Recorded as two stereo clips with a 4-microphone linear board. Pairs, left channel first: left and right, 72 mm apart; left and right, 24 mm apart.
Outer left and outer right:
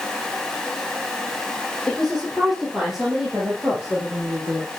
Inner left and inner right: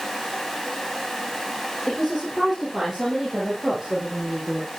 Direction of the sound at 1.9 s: 5° left (ahead or behind).